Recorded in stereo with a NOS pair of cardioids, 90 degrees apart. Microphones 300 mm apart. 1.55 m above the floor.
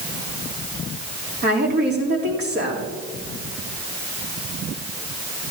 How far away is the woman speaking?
About 3.5 m.